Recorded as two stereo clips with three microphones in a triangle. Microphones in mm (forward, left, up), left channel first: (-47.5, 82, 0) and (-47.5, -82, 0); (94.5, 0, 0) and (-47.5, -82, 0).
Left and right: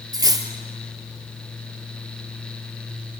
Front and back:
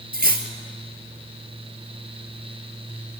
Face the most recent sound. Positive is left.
turn(degrees=-155)